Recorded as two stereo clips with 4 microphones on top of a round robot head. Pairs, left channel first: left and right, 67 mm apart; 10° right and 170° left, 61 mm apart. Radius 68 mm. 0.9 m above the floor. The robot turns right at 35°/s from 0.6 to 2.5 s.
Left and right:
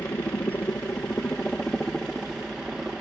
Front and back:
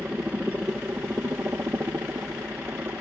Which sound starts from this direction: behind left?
A helicopter, at 0.0 s.